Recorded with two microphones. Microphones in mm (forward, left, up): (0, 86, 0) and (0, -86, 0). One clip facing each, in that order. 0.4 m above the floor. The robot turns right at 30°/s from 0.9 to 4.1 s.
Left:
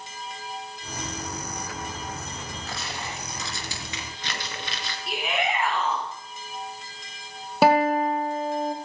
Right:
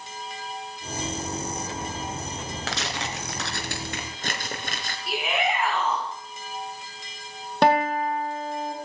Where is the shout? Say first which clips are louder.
Right 1 dB; centre (ahead or behind), 3.5 m.